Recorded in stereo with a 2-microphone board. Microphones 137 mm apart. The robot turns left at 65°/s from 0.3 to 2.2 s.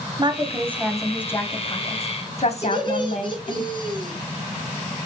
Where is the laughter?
35° left (ahead or behind), 4 m.